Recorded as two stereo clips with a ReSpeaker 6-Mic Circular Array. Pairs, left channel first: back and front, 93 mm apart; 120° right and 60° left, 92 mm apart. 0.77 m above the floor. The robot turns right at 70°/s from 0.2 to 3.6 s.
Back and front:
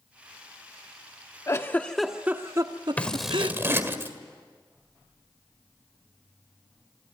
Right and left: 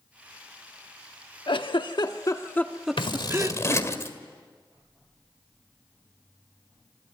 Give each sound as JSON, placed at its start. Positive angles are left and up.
{"t": 1.5, "sound": "a giggle", "azimuth_deg": -130, "distance_m": 1.2}
{"t": 3.0, "sound": "scissors", "azimuth_deg": -110, "distance_m": 1.7}